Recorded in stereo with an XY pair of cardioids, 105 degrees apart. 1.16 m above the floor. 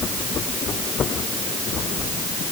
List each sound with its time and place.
Only background noise.